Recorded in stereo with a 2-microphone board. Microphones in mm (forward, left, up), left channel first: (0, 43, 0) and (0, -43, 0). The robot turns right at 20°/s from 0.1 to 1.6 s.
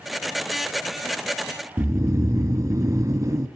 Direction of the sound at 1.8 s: 40° right (ahead or behind).